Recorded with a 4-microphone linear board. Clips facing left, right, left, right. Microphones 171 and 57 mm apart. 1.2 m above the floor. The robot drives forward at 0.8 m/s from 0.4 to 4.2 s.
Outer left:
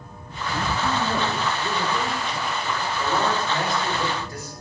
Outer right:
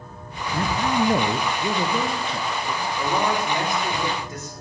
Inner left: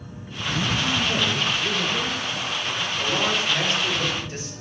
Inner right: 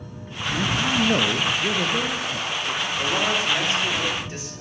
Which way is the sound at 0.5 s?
30° right (ahead or behind).